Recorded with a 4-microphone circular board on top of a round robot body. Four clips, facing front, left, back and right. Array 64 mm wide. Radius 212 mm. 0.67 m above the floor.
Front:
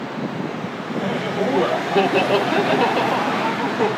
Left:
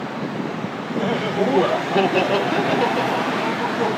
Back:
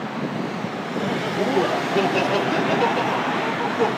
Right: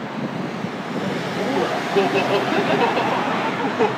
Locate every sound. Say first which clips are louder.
1.0 s laughter: left 4 dB, front 1 dB; 75° left, 1.4 m; by 3.9 s 60° right, 1.5 m